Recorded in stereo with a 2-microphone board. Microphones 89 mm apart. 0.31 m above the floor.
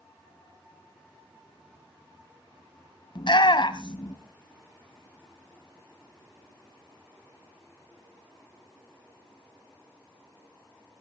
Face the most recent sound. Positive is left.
turn(degrees=60)  # may be behind; listen again after turning